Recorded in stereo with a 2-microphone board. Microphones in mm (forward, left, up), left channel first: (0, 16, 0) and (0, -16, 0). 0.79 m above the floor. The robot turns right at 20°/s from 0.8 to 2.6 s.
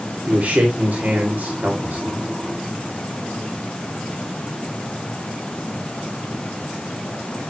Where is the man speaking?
50° right (ahead or behind), 2 m; by 2.3 s 65° right (ahead or behind), 2 m.